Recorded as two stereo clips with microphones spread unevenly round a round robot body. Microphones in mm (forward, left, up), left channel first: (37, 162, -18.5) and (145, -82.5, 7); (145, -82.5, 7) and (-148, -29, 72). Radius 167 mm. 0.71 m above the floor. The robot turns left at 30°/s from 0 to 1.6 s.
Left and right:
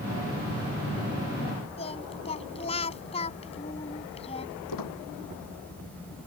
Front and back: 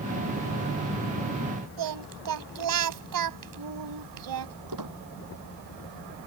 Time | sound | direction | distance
1.8 | singing | 170° right | ?
4.7 | a squeak | 130° left | ?